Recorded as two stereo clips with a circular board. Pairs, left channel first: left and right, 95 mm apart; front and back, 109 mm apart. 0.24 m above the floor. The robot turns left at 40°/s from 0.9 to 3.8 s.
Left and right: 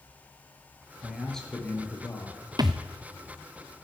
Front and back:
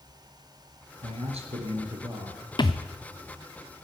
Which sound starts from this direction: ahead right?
A thud, at 2.6 s.